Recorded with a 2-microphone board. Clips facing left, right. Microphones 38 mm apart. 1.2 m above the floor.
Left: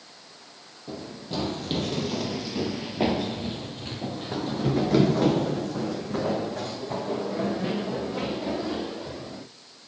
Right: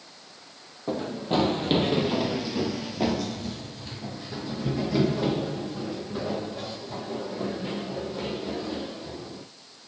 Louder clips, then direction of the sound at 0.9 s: Right 8 dB; 50° right (ahead or behind).